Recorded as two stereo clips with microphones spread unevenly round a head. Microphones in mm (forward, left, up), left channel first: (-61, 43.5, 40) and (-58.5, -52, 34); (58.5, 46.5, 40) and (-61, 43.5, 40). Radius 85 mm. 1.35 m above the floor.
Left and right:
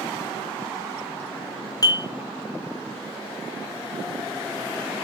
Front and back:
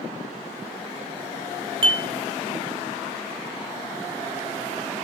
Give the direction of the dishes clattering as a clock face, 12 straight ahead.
7 o'clock.